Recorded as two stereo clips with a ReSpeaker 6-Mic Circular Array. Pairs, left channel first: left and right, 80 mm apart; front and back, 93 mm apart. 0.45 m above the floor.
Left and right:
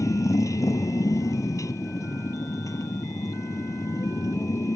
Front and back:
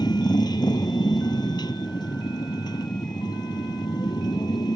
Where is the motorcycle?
45° left.